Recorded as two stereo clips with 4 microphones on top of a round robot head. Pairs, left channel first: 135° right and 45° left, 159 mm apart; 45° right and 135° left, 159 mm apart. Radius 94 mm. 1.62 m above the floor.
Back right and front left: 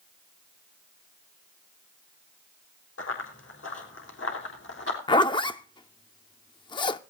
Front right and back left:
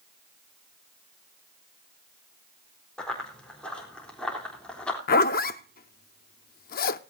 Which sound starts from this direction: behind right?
Running footsteps, at 3.0 s.